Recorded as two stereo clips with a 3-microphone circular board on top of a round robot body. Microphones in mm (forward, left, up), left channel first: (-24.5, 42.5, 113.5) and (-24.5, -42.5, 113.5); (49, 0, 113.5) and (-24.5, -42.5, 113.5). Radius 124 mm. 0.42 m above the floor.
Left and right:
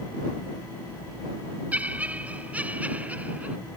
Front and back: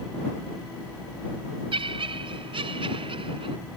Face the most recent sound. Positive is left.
turn(degrees=-165)